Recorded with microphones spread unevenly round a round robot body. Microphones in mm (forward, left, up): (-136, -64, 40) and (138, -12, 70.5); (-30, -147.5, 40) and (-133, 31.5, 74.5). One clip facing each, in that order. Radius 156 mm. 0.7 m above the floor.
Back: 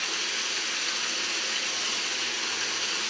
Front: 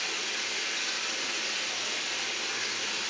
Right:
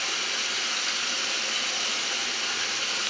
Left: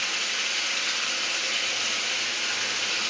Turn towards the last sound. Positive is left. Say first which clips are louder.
# back 1 dB, right 1 dB
turn(degrees=-100)